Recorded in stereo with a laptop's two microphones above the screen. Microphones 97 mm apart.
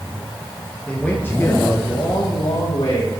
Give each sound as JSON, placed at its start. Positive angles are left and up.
{"t": 0.9, "sound": "a man speaking", "side_deg": 10, "distance_m": 1.3}